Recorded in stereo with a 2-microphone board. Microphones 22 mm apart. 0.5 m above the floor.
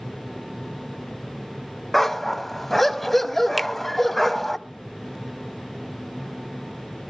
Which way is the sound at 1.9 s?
10° left (ahead or behind).